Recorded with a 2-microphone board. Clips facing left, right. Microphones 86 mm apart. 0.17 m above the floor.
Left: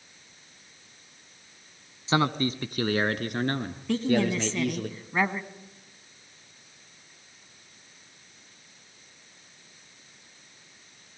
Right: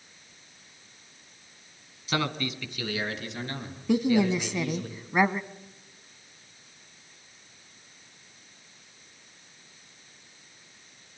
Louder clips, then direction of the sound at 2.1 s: Left 5 dB; 25° left (ahead or behind).